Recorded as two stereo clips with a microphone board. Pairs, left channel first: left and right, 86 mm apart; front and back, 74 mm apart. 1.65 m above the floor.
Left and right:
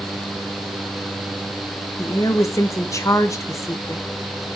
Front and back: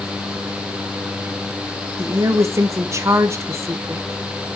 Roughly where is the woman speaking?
Behind left.